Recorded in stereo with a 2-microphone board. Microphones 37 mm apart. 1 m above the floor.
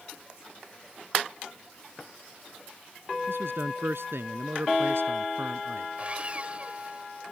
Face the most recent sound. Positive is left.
turn(degrees=-35)  # may be behind; listen again after turning